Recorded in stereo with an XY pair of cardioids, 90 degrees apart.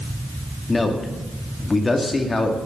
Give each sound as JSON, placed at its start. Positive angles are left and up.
{"t": 0.7, "sound": "a man speaking", "azimuth_deg": 30, "distance_m": 2.0}